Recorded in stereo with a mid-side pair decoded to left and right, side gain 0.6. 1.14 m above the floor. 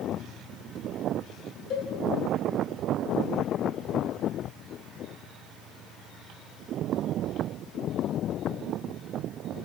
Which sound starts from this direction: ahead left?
A cowbell, at 1.7 s.